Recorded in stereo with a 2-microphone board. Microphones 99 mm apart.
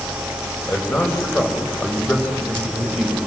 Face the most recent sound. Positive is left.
turn(degrees=5)  # may be behind; listen again after turning